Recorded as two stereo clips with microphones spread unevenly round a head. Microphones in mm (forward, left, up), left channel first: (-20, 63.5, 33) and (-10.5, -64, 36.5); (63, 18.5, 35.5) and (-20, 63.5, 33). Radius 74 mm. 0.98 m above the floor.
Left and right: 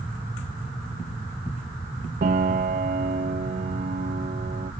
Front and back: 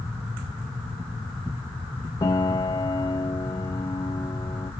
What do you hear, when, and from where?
2.2 s a piano: 85° right, 0.9 m